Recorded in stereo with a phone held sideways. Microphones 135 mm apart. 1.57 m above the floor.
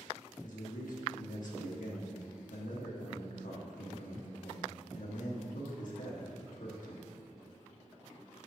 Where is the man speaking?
75° left (ahead or behind), 1.4 m.